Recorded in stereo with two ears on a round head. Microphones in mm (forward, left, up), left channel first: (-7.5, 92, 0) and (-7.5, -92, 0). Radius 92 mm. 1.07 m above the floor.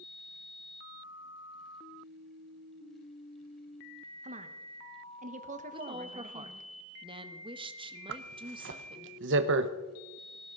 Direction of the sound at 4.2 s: 35° right (ahead or behind).